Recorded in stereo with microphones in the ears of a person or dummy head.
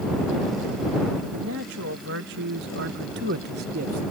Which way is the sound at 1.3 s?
70° right (ahead or behind).